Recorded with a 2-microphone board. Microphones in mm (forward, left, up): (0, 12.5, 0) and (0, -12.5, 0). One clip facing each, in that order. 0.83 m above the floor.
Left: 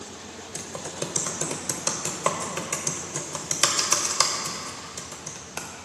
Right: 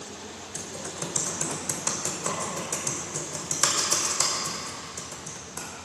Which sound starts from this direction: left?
Typing on a keyboard, at 0.6 s.